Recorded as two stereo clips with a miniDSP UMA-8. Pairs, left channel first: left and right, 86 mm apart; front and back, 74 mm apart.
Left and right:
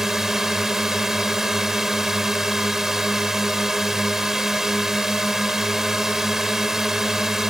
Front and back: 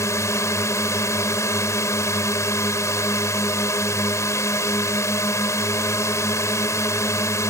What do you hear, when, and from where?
0.0 s a drone: 5° right